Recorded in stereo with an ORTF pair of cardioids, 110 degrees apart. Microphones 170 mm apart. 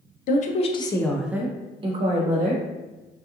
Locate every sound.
0.3 s a woman speaking: 55° left, 0.6 m; by 2.6 s 50° right, 1.0 m